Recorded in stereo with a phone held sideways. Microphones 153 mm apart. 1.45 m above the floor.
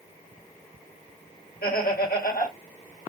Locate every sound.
1.6 s laughter: 85° left, 2 m